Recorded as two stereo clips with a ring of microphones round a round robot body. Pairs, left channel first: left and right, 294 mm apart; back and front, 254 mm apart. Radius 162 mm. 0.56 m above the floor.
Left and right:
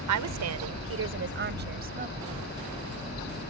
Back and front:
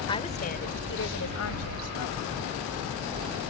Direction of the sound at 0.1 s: 105° right.